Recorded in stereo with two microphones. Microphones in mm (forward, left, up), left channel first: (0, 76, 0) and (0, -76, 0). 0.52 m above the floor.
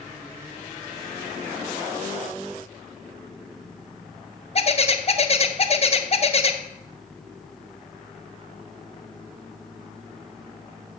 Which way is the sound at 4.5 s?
40° left (ahead or behind).